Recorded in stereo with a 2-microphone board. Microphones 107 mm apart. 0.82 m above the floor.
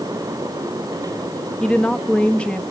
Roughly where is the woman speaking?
Centre.